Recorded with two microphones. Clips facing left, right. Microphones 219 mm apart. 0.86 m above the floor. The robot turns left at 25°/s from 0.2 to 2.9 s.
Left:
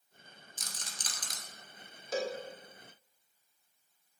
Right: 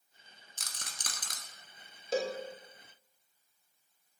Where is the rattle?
70° right (ahead or behind), 0.8 m; by 1.4 s 50° right (ahead or behind), 0.8 m.